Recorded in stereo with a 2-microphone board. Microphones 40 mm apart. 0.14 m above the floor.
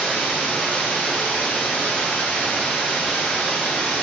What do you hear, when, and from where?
0.0 s running water: centre (ahead or behind), 9 m